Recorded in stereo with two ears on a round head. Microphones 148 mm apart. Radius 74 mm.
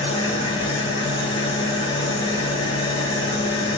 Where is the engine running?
30° left (ahead or behind), 1.0 m.